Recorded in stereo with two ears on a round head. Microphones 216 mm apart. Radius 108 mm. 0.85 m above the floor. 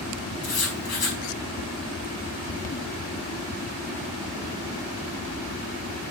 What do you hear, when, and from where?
0.4 s writing: 65° left (ahead or behind), 4.5 m